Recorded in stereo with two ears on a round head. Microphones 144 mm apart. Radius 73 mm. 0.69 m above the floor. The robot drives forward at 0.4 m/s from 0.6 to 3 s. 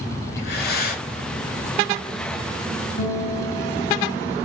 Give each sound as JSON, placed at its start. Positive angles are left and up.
{"t": 0.4, "sound": "breathing", "side_deg": 70, "distance_m": 1.3}
{"t": 3.0, "sound": "a guitar", "side_deg": 55, "distance_m": 4.5}